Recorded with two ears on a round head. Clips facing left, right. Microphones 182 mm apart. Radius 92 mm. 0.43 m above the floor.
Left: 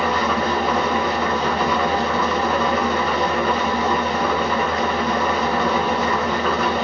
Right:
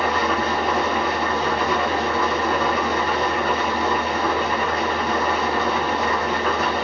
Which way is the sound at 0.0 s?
65° left (ahead or behind).